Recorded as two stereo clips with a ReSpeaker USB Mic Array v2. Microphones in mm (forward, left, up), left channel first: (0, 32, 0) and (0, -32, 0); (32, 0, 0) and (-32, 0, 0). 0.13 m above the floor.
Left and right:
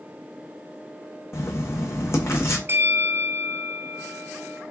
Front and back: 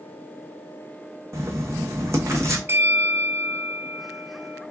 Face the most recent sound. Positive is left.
turn(degrees=-135)